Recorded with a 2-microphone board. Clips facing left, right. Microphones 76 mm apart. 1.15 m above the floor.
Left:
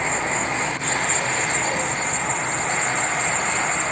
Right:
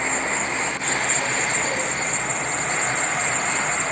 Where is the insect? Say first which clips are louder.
Left 1 dB; 65° left (ahead or behind), 1.7 m.